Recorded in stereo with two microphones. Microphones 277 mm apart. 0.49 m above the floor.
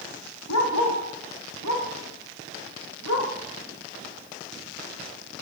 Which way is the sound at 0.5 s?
85° left.